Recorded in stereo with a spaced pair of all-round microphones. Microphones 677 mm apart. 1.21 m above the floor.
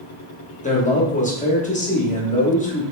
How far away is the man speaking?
About 0.8 m.